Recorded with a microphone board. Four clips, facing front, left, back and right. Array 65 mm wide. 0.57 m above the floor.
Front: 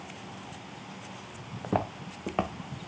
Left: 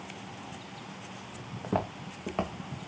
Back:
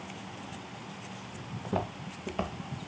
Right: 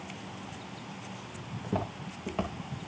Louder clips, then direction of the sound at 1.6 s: Left 3 dB, front 3 dB; 25° left.